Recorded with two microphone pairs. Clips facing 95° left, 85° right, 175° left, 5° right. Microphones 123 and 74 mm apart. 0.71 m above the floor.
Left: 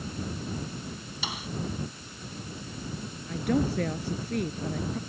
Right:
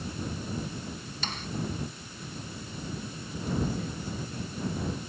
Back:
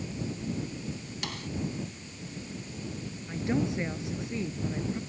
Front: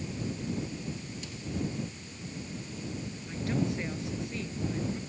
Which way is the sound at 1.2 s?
175° left.